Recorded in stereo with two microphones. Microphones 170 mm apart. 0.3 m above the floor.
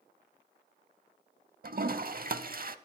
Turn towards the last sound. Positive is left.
turn(degrees=-60)  # may be behind; listen again after turning